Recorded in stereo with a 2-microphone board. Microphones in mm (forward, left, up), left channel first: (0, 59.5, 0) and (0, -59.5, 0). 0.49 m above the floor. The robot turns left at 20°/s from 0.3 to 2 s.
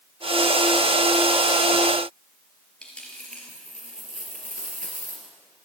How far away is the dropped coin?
About 4 m.